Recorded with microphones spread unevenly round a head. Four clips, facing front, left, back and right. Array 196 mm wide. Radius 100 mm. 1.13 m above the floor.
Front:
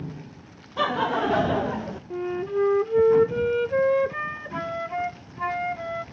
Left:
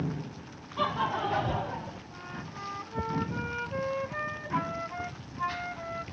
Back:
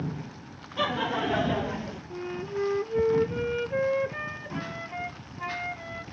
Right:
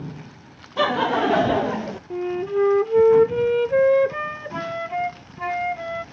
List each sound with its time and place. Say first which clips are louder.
0.8 s laughter: right 9 dB, front 4 dB; 85° right; by 2.0 s 80° right
2.1 s a flute: right 19 dB, front 7 dB; 75° right